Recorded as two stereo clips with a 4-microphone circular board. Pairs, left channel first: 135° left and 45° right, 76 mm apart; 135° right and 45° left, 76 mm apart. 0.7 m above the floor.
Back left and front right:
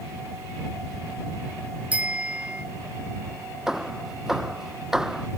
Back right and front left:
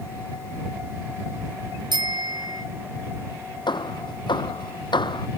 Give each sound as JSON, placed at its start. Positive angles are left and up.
{"t": 1.9, "sound": "a bicycle bell", "azimuth_deg": 25}
{"t": 3.7, "sound": "hammering", "azimuth_deg": -130}